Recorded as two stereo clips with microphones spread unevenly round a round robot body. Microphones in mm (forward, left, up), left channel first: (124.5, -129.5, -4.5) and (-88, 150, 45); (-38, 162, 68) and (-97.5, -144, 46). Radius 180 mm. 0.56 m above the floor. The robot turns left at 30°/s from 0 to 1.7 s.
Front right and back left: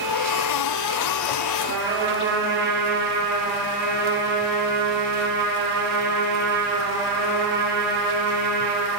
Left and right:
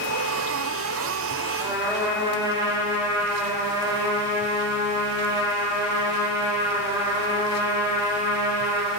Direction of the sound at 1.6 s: 175° right.